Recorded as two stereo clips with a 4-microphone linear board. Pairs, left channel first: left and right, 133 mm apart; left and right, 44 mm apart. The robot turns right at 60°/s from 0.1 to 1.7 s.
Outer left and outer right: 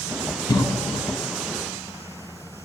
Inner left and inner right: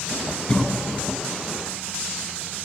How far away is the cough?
About 1.9 m.